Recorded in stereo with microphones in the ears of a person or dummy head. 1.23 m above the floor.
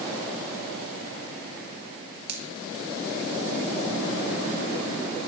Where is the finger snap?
60° right (ahead or behind), 2 m.